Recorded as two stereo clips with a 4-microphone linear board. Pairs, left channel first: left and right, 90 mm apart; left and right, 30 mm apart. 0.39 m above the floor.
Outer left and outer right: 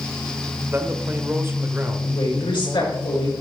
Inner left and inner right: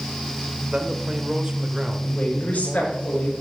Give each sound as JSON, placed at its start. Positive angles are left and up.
{"t": 0.7, "sound": "a man speaking", "side_deg": -25, "distance_m": 1.2}
{"t": 2.0, "sound": "a woman speaking", "side_deg": 75, "distance_m": 5.0}